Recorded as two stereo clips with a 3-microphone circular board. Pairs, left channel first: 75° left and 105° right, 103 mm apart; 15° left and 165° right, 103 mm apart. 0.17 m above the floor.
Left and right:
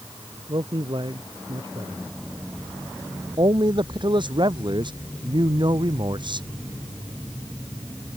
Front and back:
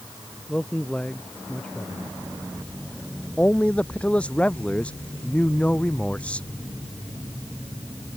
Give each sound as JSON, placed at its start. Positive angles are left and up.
{"t": 0.5, "sound": "a man speaking", "azimuth_deg": -65}
{"t": 3.4, "sound": "a man speaking", "azimuth_deg": -65}